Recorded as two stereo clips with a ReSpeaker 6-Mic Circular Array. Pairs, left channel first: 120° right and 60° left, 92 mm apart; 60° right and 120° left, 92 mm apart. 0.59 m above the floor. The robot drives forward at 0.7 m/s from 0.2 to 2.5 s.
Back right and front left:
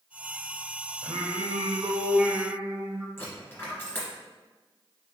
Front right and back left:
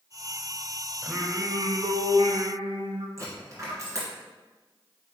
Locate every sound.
1.0 s singing: 40° left, 0.7 m; by 3.1 s 140° left, 0.7 m
3.2 s a dropped coin: 175° left, 1.6 m